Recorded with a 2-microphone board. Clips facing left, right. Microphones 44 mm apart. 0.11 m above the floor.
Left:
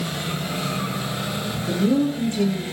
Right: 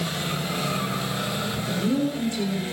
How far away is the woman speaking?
About 6.5 m.